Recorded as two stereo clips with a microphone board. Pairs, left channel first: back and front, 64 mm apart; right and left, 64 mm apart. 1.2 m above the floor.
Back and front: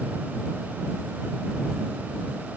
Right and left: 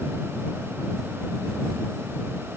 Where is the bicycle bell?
No bicycle bell in this recording.